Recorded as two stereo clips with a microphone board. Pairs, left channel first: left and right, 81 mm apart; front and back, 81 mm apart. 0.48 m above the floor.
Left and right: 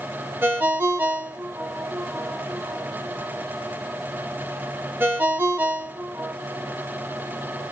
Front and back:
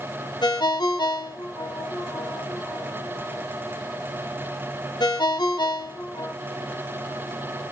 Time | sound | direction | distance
0.4 | a ringtone | 25° right | 0.7 m